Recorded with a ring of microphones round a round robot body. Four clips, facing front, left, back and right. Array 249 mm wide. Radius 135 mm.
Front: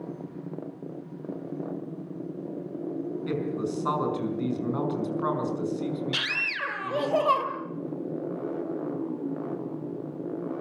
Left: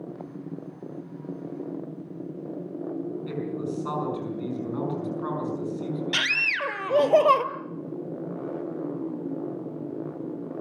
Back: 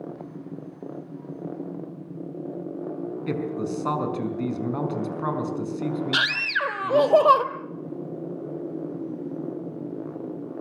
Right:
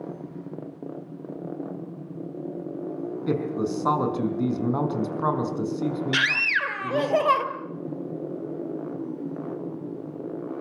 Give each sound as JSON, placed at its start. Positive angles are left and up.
{"t": 3.3, "sound": "a man speaking", "azimuth_deg": -110, "distance_m": 5.5}
{"t": 6.1, "sound": "a scream", "azimuth_deg": 145, "distance_m": 1.7}